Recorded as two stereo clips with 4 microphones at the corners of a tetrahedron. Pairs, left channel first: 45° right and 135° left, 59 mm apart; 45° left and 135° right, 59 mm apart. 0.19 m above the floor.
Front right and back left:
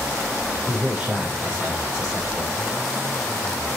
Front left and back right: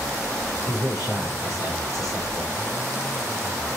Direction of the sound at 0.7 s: 65° left.